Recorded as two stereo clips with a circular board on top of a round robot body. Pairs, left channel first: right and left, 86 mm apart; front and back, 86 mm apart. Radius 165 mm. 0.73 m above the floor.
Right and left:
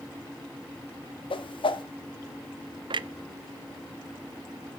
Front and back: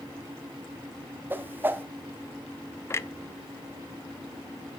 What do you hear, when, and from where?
1.3 s a whoosh: 110° right, 1.1 m
2.9 s a clunk: 60° left, 0.5 m